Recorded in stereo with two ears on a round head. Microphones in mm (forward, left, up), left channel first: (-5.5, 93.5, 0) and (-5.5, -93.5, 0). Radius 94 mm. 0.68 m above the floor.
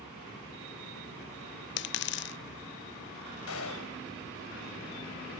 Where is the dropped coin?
55° left (ahead or behind), 0.5 m.